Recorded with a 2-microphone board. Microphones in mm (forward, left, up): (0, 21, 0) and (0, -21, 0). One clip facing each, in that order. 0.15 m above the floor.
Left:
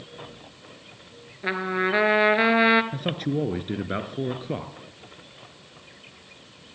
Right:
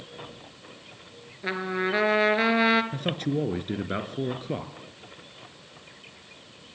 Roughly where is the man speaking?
Centre.